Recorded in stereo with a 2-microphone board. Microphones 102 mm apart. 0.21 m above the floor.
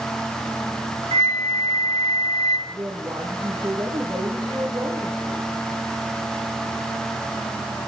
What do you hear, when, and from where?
1.1 s a flute: 80° right, 2.5 m
2.7 s a woman speaking: 40° right (ahead or behind), 6 m